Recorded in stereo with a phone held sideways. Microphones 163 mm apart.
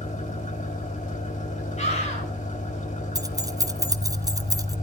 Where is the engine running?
50° left (ahead or behind), 1.4 m.